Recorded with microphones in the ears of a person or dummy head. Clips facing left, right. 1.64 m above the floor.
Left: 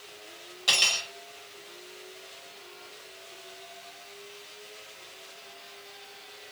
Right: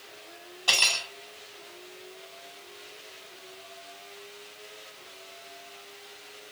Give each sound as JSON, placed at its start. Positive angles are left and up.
{"t": 0.7, "sound": "cutlery clinking", "side_deg": 20, "distance_m": 1.8}